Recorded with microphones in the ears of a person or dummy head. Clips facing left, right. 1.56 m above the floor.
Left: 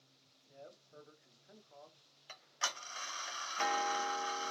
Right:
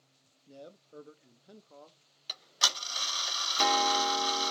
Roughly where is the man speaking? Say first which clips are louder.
Right 6 dB; right.